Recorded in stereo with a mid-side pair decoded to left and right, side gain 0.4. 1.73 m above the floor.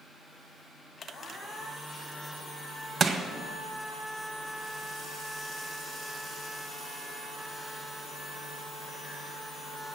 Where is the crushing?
50° right, 1.4 m.